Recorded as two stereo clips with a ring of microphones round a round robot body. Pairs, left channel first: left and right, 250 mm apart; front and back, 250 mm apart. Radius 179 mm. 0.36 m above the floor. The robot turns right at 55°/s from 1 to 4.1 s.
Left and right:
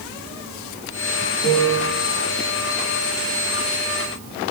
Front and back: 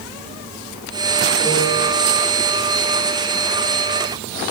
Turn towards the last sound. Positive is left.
turn(degrees=-170)